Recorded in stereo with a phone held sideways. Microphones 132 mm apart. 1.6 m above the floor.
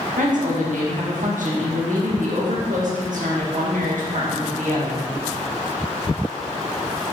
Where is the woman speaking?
80° right, 1.8 m.